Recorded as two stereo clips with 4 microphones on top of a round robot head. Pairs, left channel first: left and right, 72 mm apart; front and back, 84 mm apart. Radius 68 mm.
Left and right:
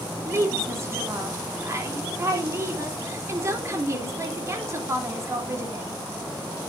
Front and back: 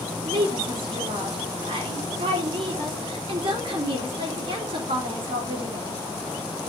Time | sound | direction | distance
0.2 | a woman speaking | 140° right | 3 m